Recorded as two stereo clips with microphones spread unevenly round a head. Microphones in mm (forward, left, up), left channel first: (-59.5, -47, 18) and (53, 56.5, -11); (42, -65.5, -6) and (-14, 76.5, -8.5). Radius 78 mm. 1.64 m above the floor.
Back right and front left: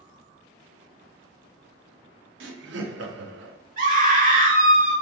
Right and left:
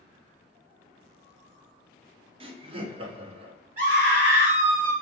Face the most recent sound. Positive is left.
turn(degrees=80)